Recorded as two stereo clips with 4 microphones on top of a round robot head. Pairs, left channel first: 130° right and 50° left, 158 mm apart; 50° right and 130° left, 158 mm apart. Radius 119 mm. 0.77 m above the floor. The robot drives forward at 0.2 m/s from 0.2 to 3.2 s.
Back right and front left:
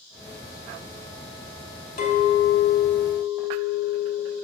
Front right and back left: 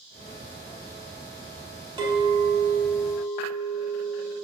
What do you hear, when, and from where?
2.0 s a clink: 170° right, 1.5 m